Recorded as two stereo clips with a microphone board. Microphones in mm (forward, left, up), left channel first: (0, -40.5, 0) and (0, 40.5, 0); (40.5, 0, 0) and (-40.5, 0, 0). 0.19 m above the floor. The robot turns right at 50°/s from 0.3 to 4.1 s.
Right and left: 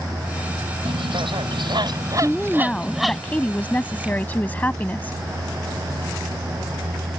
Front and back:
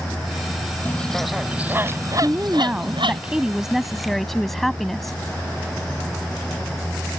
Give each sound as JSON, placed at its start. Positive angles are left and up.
{"t": 0.8, "sound": "a bird", "azimuth_deg": 70}
{"t": 2.2, "sound": "a woman speaking", "azimuth_deg": -175}